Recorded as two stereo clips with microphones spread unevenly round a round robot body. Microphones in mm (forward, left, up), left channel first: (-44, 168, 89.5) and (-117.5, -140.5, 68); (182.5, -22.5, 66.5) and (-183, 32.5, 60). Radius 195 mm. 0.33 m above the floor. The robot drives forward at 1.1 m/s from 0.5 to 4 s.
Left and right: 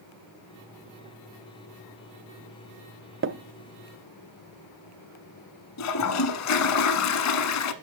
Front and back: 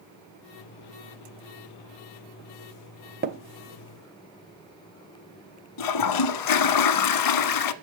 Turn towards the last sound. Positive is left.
turn(degrees=30)